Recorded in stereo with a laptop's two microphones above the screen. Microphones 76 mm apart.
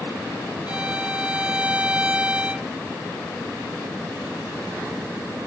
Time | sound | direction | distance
0.7 | a violin | 20° right (ahead or behind) | ?